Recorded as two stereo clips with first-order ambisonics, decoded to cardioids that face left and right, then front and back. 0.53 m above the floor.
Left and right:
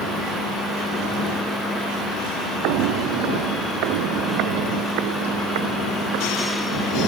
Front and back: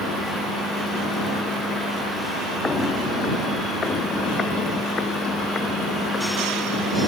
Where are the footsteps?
75° right; by 6.3 s 70° right.